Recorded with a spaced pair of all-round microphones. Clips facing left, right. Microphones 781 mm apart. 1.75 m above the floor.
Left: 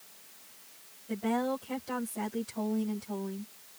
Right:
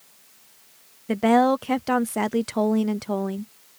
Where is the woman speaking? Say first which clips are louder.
Right 12 dB; 85° right.